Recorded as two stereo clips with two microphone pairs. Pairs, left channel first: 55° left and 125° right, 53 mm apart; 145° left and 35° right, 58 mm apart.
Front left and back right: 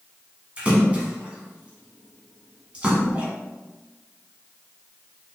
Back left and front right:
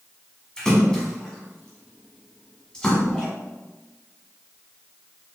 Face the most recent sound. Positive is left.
turn(degrees=-155)